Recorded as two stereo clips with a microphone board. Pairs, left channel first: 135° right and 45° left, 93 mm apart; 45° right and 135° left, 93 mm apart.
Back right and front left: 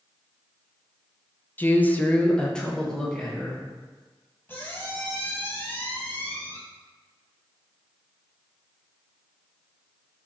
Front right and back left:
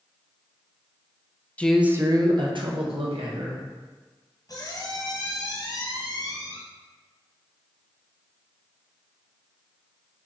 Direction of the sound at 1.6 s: 100° right.